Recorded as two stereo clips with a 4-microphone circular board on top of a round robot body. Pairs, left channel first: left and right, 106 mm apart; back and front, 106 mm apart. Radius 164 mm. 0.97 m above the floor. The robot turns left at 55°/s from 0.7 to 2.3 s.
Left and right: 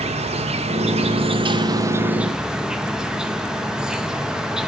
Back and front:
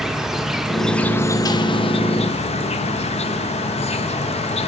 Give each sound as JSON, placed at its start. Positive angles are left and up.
{"t": 0.0, "sound": "an insect", "azimuth_deg": -85, "distance_m": 0.9}